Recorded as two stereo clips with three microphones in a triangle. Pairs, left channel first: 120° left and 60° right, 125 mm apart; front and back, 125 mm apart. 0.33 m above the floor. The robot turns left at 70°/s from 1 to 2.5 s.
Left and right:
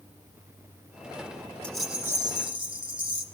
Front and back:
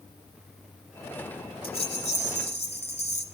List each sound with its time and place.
1.6 s a rattle: 40° left, 2 m; by 3.2 s 20° right, 2 m